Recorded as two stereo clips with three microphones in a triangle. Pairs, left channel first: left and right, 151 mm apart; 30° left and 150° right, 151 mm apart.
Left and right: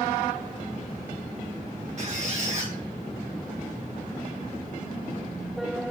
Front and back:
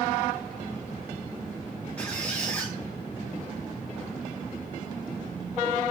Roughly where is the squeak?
Ahead right.